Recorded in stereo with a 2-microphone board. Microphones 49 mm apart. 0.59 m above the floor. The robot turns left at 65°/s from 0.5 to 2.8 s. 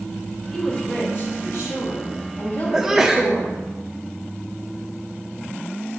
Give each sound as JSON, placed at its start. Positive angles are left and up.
{"t": 0.5, "sound": "a woman speaking", "azimuth_deg": 175, "distance_m": 2.5}
{"t": 2.7, "sound": "a sneeze", "side_deg": -10, "distance_m": 0.7}